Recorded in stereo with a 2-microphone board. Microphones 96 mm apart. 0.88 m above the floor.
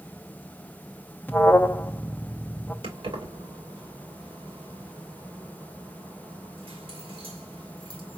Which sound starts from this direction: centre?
An alarm, at 1.3 s.